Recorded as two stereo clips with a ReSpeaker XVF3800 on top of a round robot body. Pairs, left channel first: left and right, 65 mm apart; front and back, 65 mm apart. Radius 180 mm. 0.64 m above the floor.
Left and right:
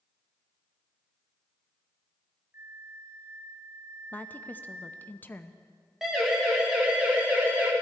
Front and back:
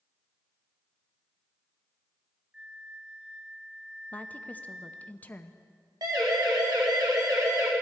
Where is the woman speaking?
45° left, 0.8 m.